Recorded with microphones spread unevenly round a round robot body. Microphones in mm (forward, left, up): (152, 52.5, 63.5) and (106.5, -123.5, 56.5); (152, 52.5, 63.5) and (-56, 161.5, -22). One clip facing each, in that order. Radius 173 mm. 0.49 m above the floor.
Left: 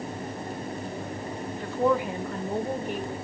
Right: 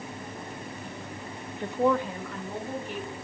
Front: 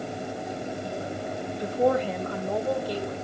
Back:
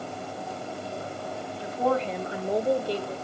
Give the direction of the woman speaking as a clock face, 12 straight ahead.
3 o'clock.